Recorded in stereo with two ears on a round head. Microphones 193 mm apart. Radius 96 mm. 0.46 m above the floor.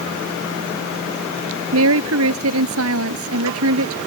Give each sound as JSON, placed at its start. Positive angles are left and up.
{"t": 1.7, "sound": "a woman speaking", "side_deg": -75}